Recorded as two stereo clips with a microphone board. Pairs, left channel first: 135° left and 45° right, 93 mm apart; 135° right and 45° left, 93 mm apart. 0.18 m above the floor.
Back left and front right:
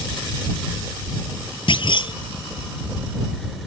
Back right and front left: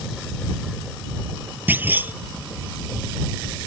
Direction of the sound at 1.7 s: 115° left.